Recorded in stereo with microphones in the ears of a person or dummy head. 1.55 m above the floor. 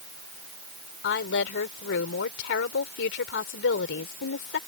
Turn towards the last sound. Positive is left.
turn(degrees=70)  # may be behind; listen again after turning